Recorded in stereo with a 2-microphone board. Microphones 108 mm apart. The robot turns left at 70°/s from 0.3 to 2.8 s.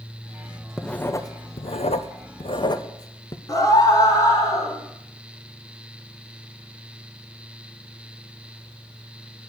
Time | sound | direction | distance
0.8 | writing | centre (ahead or behind) | 0.9 m
3.5 | a scream | 35° left (ahead or behind) | 3.5 m